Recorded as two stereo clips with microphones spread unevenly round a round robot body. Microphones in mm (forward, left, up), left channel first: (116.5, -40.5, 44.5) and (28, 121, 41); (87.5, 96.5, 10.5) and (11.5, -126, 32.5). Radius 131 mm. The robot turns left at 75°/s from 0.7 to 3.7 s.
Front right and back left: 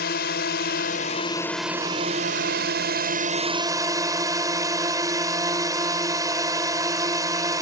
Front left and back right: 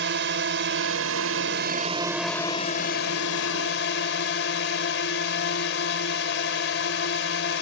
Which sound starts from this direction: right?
A drone, at 0.0 s.